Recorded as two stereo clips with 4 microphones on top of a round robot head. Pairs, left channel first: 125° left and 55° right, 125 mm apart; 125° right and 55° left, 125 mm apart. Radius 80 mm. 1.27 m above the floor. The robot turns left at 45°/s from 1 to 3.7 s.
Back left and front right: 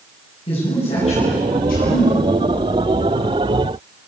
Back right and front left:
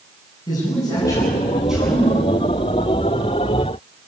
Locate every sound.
0.5 s a man speaking: 170° left, 9.5 m; by 2.3 s 115° left, 9.5 m